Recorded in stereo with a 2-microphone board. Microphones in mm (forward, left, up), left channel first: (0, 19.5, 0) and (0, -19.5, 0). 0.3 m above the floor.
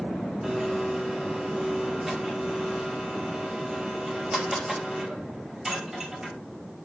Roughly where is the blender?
Centre.